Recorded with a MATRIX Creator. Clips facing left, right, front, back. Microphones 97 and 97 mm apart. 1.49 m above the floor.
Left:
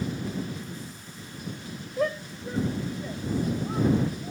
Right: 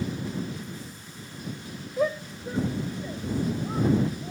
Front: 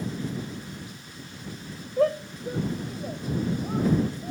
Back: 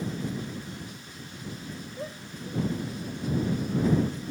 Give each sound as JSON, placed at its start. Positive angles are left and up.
{"t": 2.0, "sound": "a shout", "azimuth_deg": -5}